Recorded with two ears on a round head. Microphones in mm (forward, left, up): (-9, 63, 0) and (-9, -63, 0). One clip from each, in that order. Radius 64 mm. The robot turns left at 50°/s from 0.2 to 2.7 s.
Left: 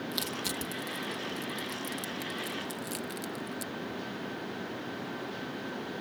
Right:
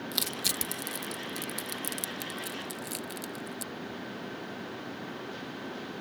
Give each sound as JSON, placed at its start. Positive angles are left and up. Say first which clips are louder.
{"t": 0.1, "sound": "crushing", "louder": "right 4 dB", "side_deg": -25}